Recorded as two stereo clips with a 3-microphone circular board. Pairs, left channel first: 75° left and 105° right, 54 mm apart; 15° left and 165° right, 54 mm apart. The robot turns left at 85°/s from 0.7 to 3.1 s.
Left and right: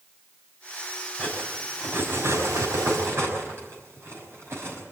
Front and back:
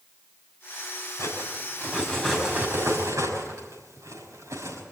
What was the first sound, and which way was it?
Cutlery clinking, 20° left.